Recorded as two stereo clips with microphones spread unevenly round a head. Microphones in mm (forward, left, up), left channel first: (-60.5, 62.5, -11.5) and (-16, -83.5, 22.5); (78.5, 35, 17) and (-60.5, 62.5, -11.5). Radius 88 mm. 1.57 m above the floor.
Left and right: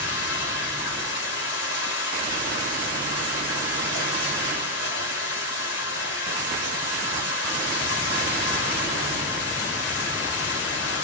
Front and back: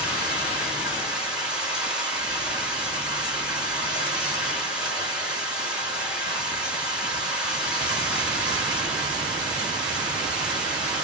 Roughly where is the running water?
Left.